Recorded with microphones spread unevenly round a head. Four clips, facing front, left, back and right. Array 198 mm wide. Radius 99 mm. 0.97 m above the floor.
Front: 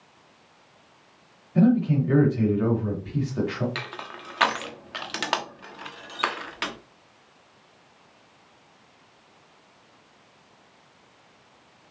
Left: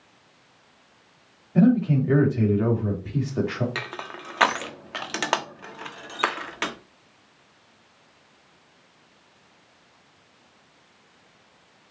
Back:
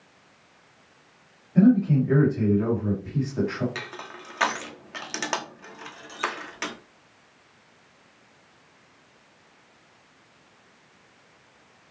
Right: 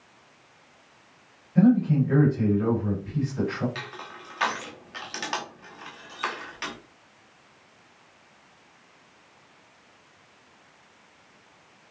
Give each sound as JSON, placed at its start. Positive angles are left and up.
{"t": 1.6, "sound": "a man speaking", "azimuth_deg": 90, "distance_m": 3.0}
{"t": 3.8, "sound": "crushing", "azimuth_deg": 95, "distance_m": 1.0}